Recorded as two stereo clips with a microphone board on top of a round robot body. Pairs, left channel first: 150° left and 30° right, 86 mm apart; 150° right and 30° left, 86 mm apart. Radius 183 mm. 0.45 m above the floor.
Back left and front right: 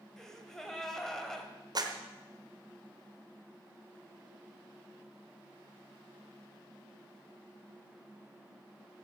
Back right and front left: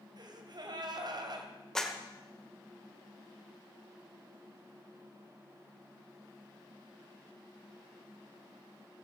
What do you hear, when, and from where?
0.2 s a gasp: 65° left, 1.8 m
1.8 s a clap: 65° right, 1.7 m